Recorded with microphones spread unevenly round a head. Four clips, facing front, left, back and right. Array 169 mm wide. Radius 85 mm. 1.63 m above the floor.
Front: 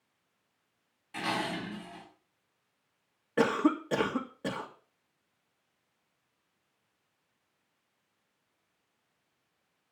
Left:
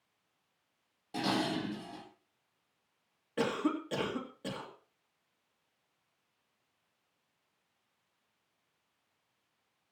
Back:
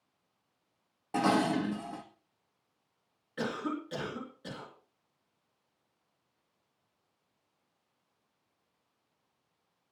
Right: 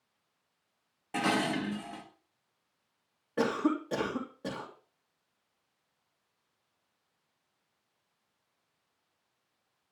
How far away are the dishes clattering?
About 2.0 m.